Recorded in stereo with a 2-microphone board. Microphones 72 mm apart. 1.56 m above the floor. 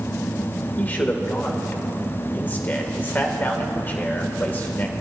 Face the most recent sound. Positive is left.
turn(degrees=25)  # may be behind; listen again after turning